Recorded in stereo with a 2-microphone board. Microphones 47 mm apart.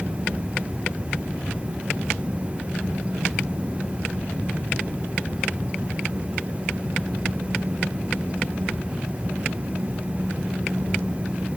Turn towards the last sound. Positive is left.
No sound to turn to.